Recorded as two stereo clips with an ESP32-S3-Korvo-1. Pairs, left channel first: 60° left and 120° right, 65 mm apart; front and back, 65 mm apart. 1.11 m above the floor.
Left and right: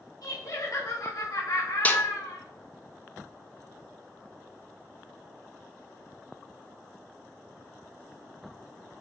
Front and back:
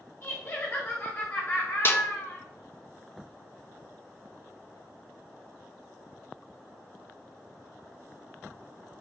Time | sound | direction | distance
0.2 | laughter | 60° left | 1.6 m
1.9 | a snare drum | 15° left | 0.5 m